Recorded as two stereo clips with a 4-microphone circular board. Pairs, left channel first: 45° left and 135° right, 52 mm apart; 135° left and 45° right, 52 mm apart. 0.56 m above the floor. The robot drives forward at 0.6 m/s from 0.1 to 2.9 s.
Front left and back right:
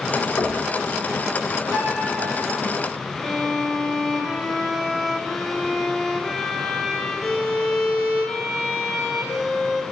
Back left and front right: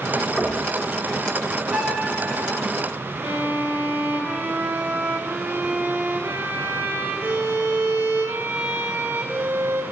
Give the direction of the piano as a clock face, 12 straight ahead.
4 o'clock.